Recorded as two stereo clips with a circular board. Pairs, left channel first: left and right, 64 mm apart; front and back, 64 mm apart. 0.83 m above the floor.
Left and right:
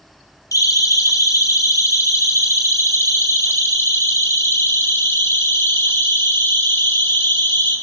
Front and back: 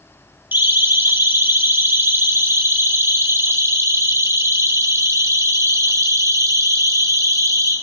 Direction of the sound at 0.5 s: 120° left.